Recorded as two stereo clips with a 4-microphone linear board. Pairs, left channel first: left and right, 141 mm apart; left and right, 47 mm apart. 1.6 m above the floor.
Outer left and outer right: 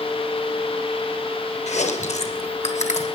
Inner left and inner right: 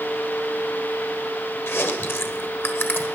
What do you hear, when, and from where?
1.7 s chewing: 55° left (ahead or behind), 1.3 m